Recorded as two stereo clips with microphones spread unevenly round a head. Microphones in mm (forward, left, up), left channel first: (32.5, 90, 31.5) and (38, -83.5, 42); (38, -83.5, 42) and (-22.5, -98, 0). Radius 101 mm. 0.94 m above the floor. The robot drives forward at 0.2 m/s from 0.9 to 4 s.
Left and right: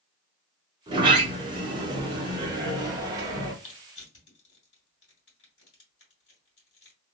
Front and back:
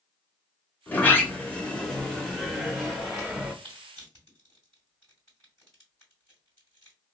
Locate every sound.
0.9 s a sliding door: 110° right, 0.8 m; by 3.5 s 155° right, 1.0 m
3.6 s crushing: 120° left, 2 m